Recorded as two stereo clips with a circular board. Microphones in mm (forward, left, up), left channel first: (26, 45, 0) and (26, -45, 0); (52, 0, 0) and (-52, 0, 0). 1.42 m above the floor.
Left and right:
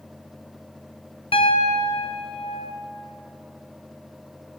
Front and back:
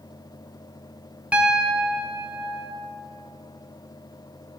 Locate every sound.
1.3 s a piano: 100° left, 0.7 m